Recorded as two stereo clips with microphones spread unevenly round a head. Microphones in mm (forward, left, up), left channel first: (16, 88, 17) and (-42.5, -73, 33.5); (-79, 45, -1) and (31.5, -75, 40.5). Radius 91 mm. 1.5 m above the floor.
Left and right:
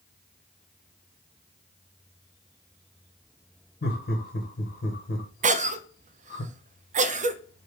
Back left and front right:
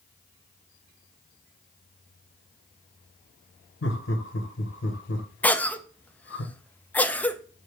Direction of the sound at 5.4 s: 155° right.